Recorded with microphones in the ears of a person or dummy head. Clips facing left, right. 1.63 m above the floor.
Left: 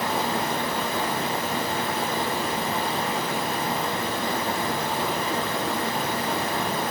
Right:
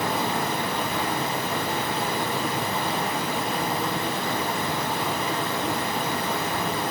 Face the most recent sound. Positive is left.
turn(degrees=-25)  # may be behind; listen again after turning